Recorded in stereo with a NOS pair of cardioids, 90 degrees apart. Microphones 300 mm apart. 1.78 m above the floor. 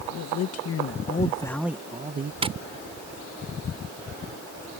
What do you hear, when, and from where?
0.1 s a man speaking: 70° left; by 2.3 s 35° right
2.4 s tapping: 20° right